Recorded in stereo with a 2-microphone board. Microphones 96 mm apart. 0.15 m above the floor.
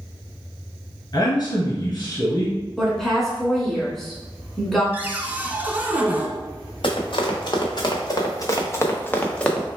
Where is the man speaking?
40° left (ahead or behind), 1.6 m.